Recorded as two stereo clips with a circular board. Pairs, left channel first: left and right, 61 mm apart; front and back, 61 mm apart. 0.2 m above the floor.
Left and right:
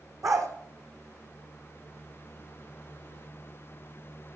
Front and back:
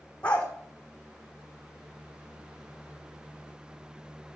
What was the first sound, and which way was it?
A dog barking, 70° right.